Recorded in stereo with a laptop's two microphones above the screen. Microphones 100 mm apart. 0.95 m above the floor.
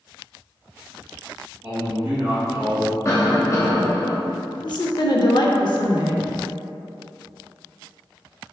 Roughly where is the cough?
Left.